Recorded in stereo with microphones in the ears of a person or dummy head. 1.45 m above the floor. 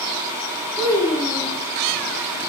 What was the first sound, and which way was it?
A child speaking, 20° left (ahead or behind).